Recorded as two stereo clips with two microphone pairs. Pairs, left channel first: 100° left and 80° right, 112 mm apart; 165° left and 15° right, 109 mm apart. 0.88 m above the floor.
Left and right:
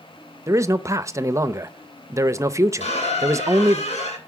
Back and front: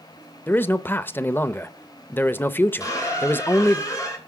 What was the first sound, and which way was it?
A man speaking, 135° right.